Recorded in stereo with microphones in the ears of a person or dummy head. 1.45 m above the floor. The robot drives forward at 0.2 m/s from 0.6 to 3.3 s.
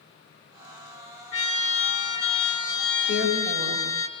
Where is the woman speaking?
60° left (ahead or behind), 7 m.